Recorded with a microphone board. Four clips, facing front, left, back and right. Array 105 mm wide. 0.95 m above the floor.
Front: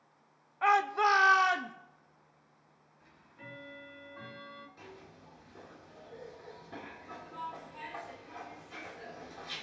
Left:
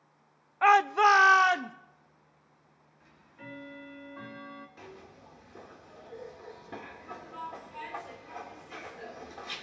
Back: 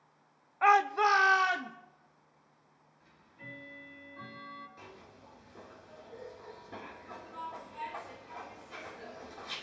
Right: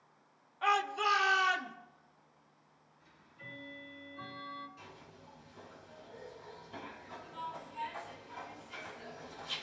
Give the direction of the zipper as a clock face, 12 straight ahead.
9 o'clock.